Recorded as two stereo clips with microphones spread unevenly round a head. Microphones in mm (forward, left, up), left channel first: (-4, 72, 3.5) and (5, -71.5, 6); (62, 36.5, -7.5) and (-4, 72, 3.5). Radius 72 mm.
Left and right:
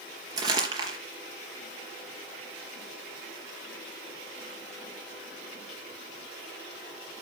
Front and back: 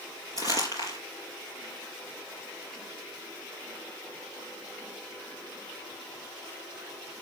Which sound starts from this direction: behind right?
Crumpling, at 0.4 s.